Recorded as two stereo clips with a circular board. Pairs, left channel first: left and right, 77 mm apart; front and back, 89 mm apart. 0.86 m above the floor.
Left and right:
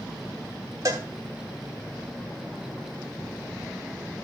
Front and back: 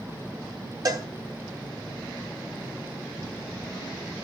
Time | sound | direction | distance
0.8 | a cowbell | 140° right | 1.7 m